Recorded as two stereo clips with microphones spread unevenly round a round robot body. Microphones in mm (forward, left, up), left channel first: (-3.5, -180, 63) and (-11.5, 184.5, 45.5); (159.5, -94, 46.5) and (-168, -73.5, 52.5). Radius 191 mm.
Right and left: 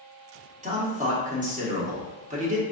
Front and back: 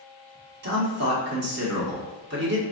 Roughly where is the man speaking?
Behind left.